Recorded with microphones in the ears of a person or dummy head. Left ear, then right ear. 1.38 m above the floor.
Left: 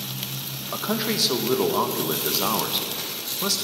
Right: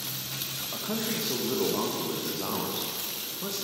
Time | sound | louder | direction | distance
0.7 | a man speaking | left 9 dB | 85° left | 1.2 m